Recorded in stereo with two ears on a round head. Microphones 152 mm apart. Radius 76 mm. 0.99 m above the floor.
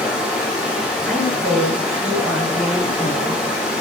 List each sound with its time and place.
0.0 s running water: 5° right (ahead or behind), 1.5 m
1.1 s a woman speaking: 5° left (ahead or behind), 1.9 m